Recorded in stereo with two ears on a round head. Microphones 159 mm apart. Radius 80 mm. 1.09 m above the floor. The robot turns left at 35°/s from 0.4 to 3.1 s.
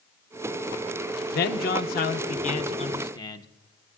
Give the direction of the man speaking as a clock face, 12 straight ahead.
9 o'clock.